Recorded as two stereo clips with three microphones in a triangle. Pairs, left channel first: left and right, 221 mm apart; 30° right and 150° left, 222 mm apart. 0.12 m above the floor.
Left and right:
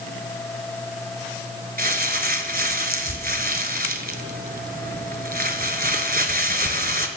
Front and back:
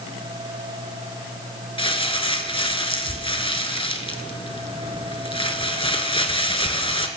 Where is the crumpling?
85° right, 1.2 m.